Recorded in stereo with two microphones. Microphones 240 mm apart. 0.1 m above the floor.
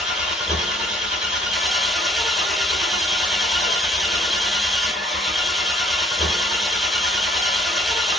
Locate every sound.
0.0 s an engine running: centre (ahead or behind), 0.9 m